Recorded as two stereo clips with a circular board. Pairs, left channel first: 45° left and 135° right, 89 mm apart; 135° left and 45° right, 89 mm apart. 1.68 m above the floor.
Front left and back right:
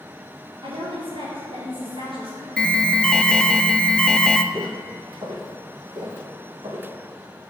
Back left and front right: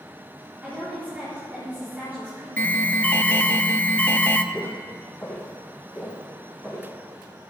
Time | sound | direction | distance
0.6 | a woman speaking | 120° right | 4.5 m
2.6 | an alarm | 105° left | 0.7 m
4.5 | footsteps | 170° right | 3 m